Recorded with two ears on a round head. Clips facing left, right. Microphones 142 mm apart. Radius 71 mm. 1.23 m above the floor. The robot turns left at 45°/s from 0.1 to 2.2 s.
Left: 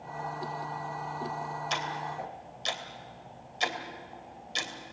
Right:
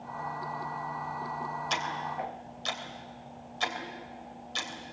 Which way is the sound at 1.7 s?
Centre (ahead or behind).